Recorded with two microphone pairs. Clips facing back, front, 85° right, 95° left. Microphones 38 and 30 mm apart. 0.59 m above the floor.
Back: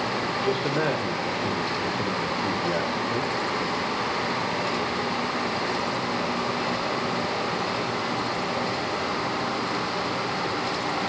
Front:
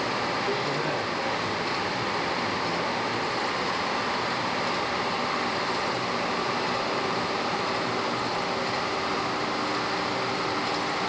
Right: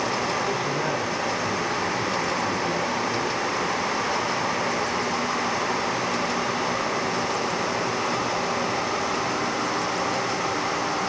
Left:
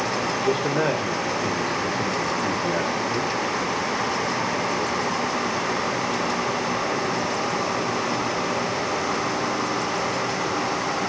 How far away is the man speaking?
About 2.5 m.